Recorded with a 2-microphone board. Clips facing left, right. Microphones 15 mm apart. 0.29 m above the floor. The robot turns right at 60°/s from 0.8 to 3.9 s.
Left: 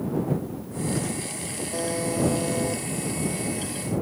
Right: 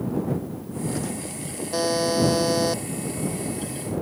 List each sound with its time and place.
1.7 s a buzzer: 130° right; by 2.8 s 60° right